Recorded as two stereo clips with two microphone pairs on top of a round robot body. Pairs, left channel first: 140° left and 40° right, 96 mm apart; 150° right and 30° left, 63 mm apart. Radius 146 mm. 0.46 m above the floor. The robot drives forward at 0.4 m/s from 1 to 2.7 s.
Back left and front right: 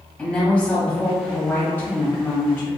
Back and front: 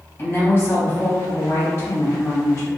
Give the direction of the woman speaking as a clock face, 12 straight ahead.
5 o'clock.